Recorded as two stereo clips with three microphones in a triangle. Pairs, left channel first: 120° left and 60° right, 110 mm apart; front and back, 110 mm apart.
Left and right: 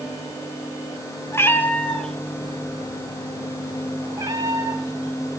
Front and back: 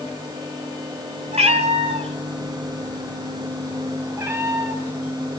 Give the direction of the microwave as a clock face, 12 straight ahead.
I don't hear a microwave.